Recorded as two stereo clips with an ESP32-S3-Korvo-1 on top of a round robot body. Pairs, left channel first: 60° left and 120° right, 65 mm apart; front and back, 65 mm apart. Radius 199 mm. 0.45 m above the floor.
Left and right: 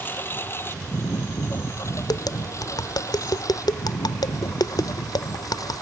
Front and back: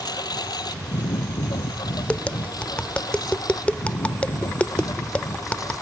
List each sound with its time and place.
0.0 s a lawn mower: straight ahead; by 5.8 s 35° left
2.1 s tapping: 75° left